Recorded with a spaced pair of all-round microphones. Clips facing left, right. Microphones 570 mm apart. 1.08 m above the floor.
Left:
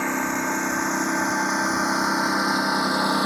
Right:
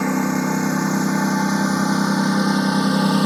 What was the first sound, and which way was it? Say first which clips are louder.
A lawn mower: right 7 dB; 65° right (ahead or behind).